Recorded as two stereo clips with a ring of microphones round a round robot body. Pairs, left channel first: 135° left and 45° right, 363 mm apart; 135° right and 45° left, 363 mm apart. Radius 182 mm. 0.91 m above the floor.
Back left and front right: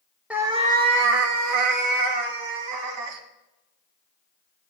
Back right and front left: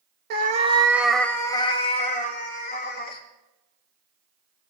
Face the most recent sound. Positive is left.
turn(degrees=-75)